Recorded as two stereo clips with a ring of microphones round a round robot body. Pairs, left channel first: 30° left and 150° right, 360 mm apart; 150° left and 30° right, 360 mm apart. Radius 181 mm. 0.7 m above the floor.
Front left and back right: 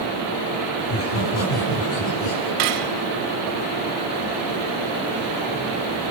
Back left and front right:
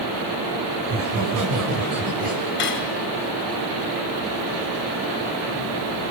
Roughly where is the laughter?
Ahead.